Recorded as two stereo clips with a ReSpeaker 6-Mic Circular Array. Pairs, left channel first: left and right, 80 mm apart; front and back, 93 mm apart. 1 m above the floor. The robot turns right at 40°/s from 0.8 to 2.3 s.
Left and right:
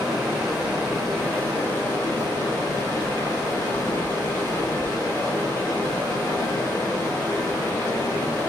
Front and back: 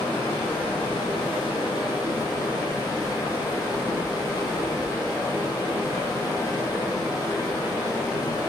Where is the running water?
10° right, 1.5 m; by 8.5 s 50° left, 1.5 m.